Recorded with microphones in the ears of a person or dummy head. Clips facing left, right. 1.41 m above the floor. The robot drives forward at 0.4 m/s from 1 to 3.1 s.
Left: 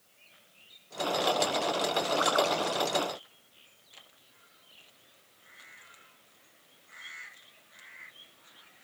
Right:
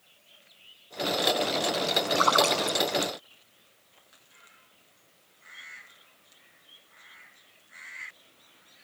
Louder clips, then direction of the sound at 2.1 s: Right 3 dB; 70° right (ahead or behind).